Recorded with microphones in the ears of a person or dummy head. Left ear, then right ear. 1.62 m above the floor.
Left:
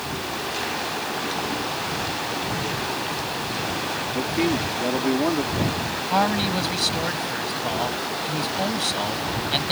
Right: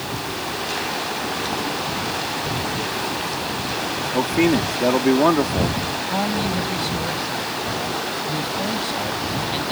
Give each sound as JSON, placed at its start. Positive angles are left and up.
{"t": 4.1, "sound": "a man speaking", "side_deg": -40}
{"t": 6.1, "sound": "a man speaking", "side_deg": 30}